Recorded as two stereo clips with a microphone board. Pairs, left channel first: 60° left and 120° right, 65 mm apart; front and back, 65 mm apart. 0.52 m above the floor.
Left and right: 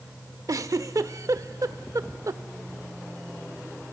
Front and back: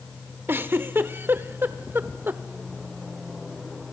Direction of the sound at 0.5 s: 130° right.